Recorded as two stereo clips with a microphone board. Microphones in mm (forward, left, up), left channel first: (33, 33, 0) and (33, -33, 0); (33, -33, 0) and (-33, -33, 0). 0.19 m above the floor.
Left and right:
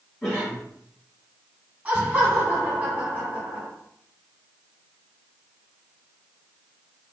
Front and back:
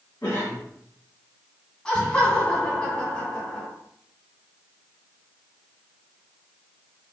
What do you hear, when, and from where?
0.2 s a cough: 25° left, 1.8 m
1.9 s laughter: 55° right, 1.6 m